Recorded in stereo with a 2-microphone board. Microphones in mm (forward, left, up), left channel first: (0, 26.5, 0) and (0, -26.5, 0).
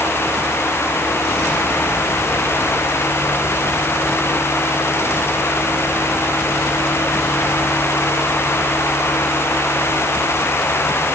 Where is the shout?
No shout in this recording.